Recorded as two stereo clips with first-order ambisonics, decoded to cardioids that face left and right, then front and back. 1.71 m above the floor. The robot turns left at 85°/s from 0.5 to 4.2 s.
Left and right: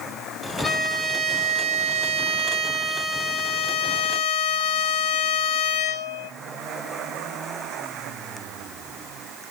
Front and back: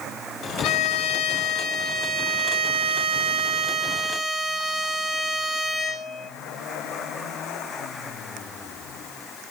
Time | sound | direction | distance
0.6 | a violin | 5° left | 1.9 m